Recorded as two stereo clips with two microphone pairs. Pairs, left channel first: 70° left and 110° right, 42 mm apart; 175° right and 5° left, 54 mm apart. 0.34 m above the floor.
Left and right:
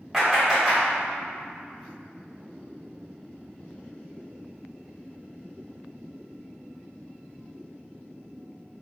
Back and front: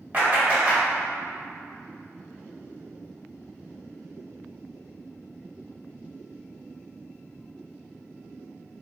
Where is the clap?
25° right, 1.4 m.